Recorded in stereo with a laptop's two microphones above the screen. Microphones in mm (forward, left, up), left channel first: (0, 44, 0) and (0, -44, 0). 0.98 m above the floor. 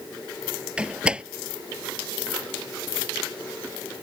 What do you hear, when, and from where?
0.8 s a door slam: 10° right (ahead or behind)